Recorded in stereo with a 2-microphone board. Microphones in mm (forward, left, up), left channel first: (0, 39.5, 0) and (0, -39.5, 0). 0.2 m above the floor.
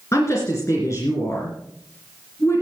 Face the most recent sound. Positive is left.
turn(degrees=40)  # may be behind; listen again after turning